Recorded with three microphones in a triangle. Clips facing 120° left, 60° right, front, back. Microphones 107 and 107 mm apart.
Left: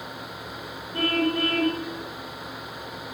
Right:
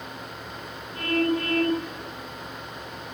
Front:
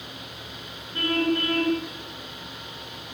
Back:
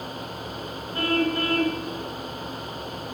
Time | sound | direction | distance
0.9 | a car horn | 120° left | 5.5 m